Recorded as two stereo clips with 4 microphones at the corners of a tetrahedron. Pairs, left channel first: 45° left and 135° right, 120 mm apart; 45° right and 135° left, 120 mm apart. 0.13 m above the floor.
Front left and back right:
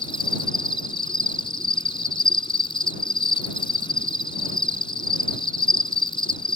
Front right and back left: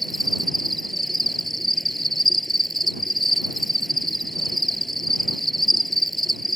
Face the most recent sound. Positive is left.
turn(degrees=45)